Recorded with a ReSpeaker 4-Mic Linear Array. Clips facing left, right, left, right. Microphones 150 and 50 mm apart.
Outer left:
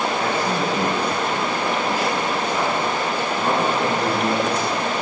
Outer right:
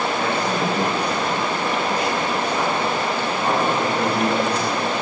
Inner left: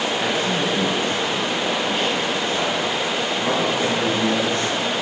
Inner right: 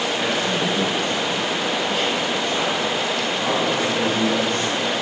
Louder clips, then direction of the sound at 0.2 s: Even, even; 10° left (ahead or behind).